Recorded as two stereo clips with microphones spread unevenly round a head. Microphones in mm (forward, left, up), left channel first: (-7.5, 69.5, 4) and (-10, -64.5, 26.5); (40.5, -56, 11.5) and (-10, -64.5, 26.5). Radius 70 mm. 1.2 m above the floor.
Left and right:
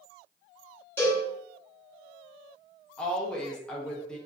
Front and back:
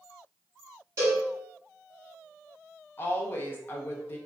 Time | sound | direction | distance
1.0 | a cowbell | 170° left | 1.1 m
3.0 | a woman speaking | 15° left | 0.6 m